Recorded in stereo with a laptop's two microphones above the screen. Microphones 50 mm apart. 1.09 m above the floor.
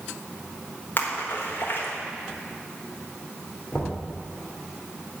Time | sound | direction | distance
1.0 | a splash | 50° left (ahead or behind) | 1.3 m
3.7 | knocking | 50° left (ahead or behind) | 2.5 m